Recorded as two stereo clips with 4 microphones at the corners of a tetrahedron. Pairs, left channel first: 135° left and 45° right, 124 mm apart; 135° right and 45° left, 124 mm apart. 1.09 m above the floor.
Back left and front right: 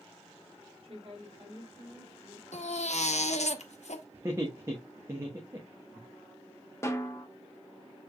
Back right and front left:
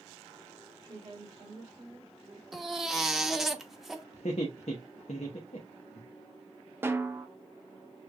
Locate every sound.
0.8 s a woman speaking: 10° right, 2 m; by 2.4 s straight ahead, 3 m
2.5 s a baby crying: 135° left, 0.7 m
4.1 s laughter: 110° right, 0.9 m
6.8 s a snare drum: 100° left, 0.8 m